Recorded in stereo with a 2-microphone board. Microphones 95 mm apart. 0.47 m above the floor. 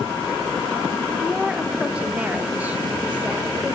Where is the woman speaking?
Centre (ahead or behind), 1.5 m; by 3.8 s 15° right (ahead or behind), 2.0 m.